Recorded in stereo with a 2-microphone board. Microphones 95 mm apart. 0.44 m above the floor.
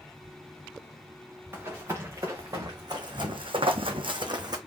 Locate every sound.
1.5 s running footsteps: 25° right (ahead or behind), 2.5 m; by 4.6 s 45° right (ahead or behind), 1.4 m